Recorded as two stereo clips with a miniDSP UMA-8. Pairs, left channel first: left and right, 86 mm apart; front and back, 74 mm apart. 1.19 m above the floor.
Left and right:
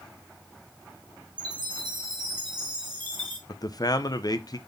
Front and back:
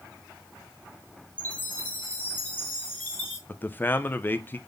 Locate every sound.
1.4 s a chime: 65° right, 2.5 m
3.5 s a man speaking: 60° left, 0.6 m